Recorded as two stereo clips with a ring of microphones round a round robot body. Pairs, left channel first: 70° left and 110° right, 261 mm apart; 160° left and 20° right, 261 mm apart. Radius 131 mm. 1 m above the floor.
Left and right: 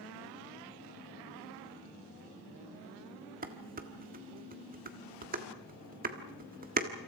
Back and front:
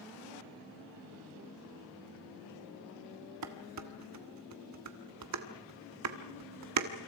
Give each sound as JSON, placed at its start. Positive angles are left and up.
{"t": 3.4, "sound": "dishes clattering", "azimuth_deg": -55, "distance_m": 1.7}